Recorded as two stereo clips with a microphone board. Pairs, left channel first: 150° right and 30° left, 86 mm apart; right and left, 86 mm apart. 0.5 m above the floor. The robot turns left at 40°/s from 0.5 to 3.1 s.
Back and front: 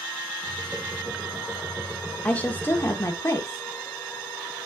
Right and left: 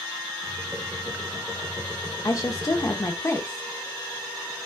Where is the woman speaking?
80° right, 0.9 m; by 3.6 s 115° right, 0.9 m.